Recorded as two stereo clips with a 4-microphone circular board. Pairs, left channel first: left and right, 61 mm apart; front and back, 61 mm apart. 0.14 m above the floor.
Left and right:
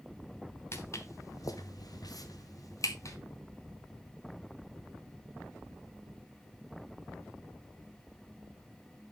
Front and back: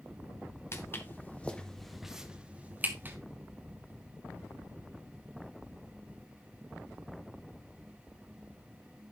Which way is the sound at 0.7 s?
45° left.